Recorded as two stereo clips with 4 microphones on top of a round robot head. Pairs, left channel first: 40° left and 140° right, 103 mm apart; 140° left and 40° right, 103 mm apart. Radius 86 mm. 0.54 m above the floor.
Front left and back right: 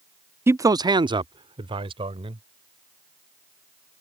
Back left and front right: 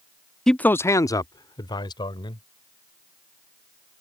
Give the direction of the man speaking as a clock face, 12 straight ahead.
5 o'clock.